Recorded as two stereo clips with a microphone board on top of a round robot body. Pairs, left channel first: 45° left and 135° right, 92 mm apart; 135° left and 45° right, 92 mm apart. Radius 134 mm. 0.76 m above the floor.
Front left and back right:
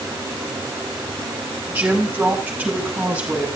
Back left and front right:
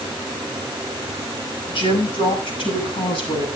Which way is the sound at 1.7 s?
155° left.